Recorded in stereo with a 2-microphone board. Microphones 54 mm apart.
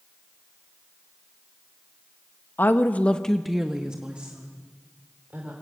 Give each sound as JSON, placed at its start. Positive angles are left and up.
{"t": 2.6, "sound": "a woman speaking", "side_deg": 40, "distance_m": 1.1}